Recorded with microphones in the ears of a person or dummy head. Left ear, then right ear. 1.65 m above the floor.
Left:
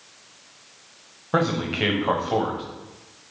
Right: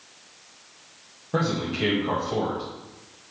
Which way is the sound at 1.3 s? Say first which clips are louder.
Left 3 dB; 30° left (ahead or behind).